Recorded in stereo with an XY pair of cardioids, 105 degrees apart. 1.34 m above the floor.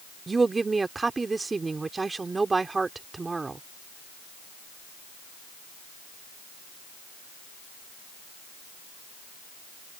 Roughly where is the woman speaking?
Ahead right.